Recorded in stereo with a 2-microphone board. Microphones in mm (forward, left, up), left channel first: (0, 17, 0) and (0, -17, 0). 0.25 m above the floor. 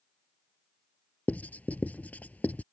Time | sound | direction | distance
1.3 | writing | 55° left (ahead or behind) | ?